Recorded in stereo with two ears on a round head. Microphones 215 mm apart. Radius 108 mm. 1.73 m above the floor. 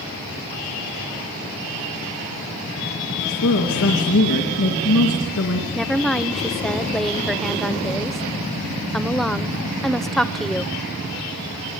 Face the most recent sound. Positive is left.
turn(degrees=0)  # may be behind; listen again after turning